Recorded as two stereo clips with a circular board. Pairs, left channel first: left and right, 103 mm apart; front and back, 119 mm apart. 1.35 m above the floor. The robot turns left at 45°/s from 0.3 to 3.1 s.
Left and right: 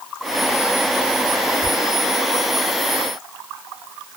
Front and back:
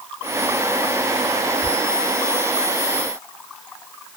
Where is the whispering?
35° right, 2.5 m; by 1.7 s 40° right, 2.5 m.